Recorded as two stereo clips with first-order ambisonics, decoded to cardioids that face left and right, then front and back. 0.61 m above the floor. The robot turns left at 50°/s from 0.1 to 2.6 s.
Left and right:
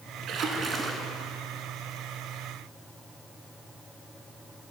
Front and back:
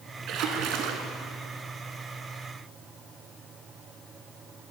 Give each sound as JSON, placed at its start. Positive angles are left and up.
{"t": 0.3, "sound": "a splash", "azimuth_deg": -135, "distance_m": 1.1}